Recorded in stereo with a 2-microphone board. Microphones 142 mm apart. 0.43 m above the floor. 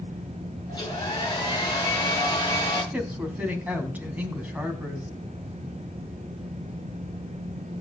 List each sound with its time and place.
0.7 s a hair dryer: 30° left (ahead or behind), 6 m
2.9 s a woman speaking: 10° right (ahead or behind), 3.5 m